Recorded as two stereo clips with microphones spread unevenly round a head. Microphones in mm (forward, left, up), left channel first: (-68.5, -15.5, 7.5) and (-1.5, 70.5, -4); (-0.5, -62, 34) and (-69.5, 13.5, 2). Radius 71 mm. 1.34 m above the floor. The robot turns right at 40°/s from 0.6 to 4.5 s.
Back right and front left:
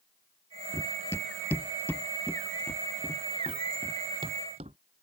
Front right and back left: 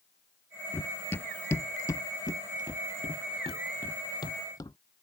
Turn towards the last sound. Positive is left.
turn(degrees=5)